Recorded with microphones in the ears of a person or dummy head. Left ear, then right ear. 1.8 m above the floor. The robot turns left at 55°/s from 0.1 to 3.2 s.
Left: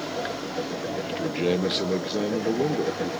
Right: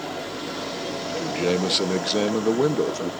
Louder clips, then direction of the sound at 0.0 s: Left 1 dB; 5° right.